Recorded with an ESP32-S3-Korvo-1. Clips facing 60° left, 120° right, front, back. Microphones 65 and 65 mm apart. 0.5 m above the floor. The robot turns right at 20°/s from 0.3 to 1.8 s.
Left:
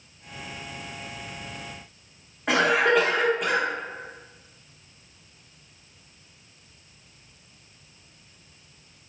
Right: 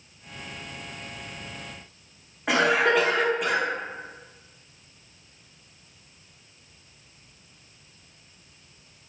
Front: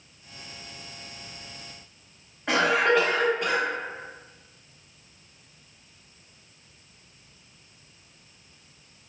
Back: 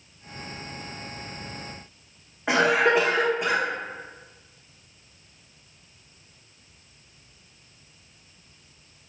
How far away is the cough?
About 0.7 m.